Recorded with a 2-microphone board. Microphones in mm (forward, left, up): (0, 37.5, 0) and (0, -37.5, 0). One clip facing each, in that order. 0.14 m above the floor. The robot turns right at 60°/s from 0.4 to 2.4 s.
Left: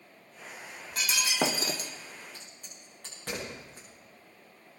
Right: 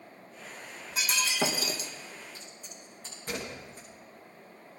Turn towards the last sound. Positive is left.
turn(degrees=75)  # may be behind; listen again after turning